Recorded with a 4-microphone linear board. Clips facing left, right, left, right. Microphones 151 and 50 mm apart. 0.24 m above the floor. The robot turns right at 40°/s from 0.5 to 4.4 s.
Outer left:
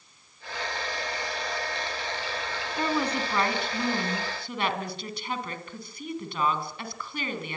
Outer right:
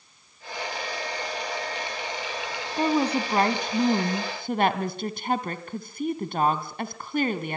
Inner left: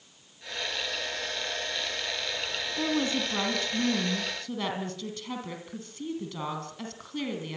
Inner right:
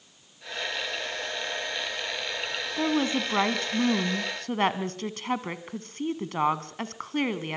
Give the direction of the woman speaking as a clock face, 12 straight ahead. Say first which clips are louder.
Outer right 5 dB, inner right 3 dB; 5 o'clock.